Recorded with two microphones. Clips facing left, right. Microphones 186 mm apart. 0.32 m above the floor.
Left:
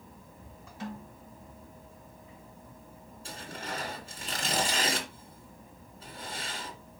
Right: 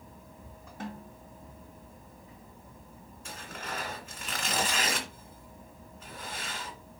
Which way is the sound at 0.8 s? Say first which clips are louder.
Left 1 dB; 55° right (ahead or behind).